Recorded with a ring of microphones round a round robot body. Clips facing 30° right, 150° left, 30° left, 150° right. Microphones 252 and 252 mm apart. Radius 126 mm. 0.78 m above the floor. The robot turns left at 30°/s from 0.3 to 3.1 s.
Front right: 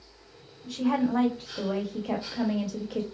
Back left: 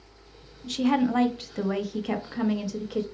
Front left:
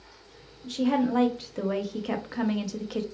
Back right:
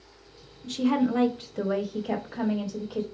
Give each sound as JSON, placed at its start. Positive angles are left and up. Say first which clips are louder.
{"t": 0.6, "sound": "a woman speaking", "louder": "back left 2 dB, back right 1 dB", "azimuth_deg": 140, "distance_m": 0.8}